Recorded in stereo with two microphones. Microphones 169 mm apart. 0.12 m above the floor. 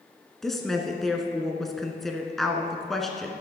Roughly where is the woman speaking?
Centre.